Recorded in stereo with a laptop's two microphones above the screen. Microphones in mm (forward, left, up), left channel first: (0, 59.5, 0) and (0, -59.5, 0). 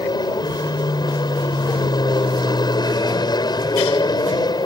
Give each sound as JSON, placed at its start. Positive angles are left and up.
{"t": 0.0, "sound": "an aircraft", "side_deg": 35}